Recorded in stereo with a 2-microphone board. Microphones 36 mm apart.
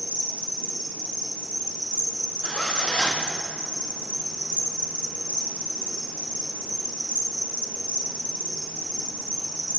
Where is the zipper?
30° left (ahead or behind), 0.7 m.